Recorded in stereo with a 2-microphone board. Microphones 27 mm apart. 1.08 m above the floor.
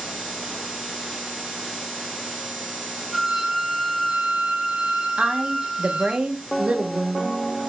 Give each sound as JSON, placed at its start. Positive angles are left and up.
{"t": 3.1, "sound": "a violin", "side_deg": -5, "distance_m": 1.6}
{"t": 5.2, "sound": "a woman speaking", "side_deg": -50, "distance_m": 0.7}